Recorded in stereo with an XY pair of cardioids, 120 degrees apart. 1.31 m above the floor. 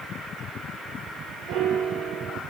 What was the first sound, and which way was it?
A piano, 70° right.